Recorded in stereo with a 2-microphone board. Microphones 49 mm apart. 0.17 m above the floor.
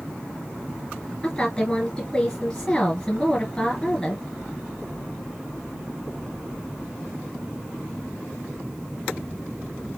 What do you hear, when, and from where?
1.2 s a woman speaking: 10° left (ahead or behind), 2.0 m